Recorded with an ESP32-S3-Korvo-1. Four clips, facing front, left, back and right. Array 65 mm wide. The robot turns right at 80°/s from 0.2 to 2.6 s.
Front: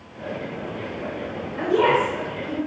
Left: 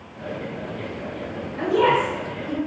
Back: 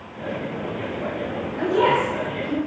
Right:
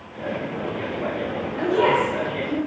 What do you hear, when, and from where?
1.6 s a woman speaking: straight ahead, 1.7 m; by 2.6 s 80° left, 1.7 m